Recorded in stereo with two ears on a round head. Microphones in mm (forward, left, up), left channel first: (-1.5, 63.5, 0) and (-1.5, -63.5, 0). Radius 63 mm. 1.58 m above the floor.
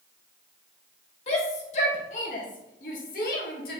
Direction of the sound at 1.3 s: 45° left (ahead or behind).